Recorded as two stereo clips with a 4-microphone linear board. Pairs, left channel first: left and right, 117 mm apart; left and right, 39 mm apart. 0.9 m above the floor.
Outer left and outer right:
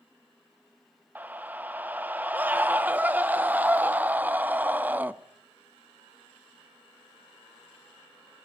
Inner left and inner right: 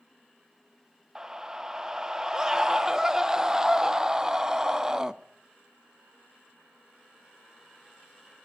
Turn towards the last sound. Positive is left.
turn(degrees=-15)  # may be behind; listen again after turning